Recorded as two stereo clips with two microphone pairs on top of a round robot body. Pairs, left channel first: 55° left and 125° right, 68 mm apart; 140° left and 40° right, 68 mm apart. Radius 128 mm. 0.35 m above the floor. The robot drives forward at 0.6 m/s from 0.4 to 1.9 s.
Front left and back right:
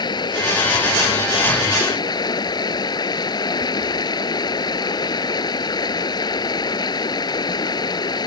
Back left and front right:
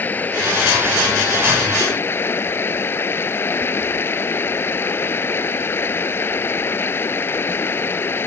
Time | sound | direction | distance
0.0 | running water | 75° left | ?